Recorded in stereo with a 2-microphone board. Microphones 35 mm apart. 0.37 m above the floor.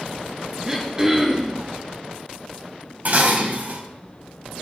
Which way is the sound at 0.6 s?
20° right (ahead or behind).